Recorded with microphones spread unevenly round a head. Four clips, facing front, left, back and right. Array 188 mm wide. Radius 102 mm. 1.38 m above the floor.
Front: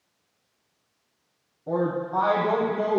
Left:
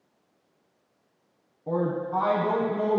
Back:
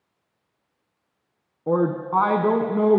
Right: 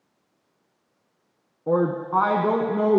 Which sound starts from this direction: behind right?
A woman speaking, at 1.7 s.